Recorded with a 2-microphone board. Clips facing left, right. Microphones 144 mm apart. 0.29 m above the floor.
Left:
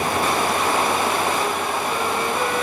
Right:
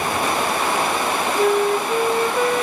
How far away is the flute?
About 1.2 m.